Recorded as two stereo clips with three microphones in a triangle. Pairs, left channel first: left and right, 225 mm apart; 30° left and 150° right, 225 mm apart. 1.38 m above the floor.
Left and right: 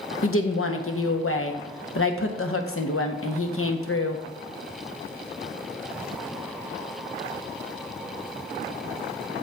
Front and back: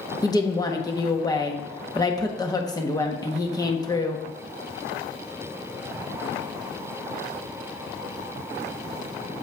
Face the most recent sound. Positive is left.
turn(degrees=100)